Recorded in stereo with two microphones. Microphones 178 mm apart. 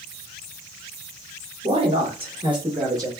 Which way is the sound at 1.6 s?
30° right (ahead or behind).